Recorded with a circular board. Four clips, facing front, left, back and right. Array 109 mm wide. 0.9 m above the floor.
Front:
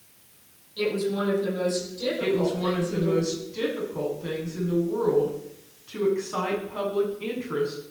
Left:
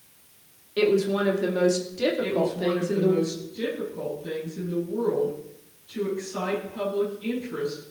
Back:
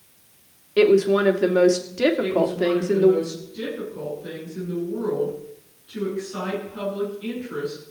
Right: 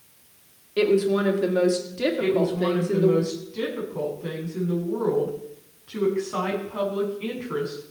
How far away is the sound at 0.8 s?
About 2 m.